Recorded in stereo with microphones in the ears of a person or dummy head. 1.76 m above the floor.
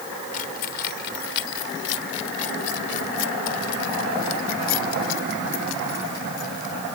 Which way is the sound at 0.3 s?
45° left (ahead or behind).